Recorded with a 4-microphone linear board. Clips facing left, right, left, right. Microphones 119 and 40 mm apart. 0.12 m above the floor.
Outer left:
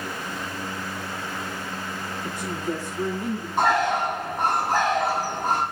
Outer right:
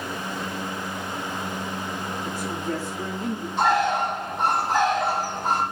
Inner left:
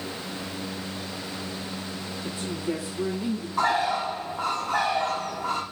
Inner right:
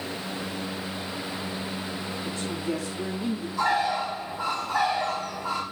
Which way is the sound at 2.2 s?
20° left (ahead or behind).